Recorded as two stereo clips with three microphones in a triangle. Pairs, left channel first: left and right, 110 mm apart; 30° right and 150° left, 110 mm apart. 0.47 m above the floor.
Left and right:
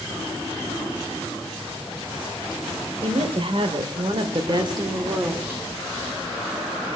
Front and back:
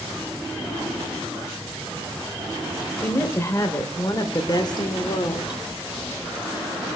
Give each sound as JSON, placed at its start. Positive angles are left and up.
{"t": 3.0, "sound": "a woman speaking", "azimuth_deg": -95, "distance_m": 1.9}